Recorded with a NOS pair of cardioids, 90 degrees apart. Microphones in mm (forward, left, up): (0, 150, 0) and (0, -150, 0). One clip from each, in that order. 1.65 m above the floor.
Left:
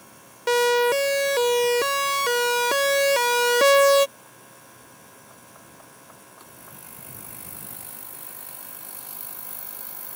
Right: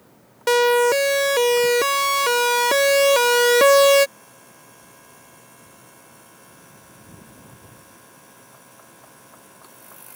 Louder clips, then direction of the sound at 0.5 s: Right 3 dB; 25° right.